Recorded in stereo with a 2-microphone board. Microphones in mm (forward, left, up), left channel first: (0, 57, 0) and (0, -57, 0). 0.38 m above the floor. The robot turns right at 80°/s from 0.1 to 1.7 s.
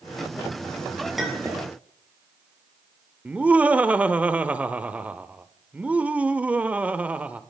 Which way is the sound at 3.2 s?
10° right (ahead or behind).